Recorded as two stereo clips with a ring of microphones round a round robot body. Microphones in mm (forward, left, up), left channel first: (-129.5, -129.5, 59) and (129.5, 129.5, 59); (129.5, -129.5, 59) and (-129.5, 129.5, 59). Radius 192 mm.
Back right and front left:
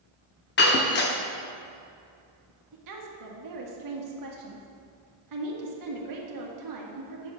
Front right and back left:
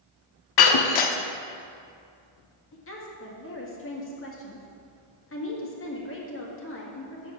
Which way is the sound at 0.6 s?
75° right.